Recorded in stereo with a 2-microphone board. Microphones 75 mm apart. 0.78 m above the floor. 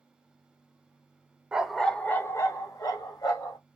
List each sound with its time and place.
1.5 s a dog barking: 15° right (ahead or behind), 0.6 m; by 3.6 s 70° left (ahead or behind), 1.3 m